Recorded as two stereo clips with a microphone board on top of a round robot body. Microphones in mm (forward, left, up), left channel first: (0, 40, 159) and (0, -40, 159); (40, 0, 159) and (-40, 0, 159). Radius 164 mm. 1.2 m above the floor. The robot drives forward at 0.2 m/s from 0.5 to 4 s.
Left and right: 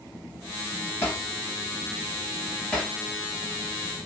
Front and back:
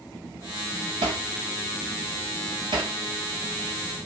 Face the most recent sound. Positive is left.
turn(degrees=170)